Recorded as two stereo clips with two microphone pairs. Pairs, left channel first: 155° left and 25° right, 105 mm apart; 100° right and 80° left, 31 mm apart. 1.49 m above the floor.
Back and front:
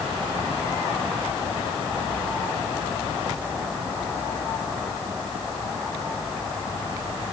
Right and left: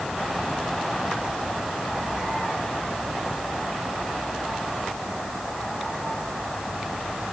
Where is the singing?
No singing in this recording.